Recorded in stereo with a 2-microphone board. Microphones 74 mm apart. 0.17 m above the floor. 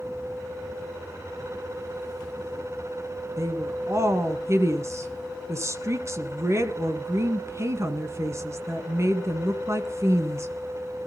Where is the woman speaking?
40° right (ahead or behind), 2 m.